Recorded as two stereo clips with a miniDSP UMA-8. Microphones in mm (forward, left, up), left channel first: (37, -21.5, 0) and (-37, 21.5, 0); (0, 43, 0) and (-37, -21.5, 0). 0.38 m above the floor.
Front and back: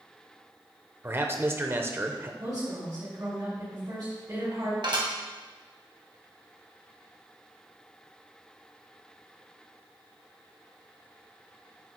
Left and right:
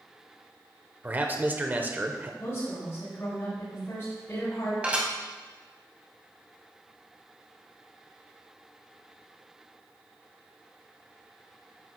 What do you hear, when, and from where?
1.0 s a man speaking: 170° right, 0.9 m
2.4 s a woman speaking: 110° left, 3.5 m
4.8 s dishes clattering: 170° left, 1.8 m